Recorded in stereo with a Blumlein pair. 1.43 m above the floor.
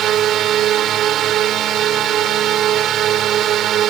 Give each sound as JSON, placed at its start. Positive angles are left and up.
{"t": 0.0, "sound": "a drone", "azimuth_deg": -30}